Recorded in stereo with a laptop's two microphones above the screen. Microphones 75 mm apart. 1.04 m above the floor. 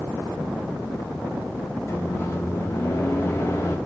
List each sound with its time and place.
1.9 s a microwave: 35° left (ahead or behind), 1.3 m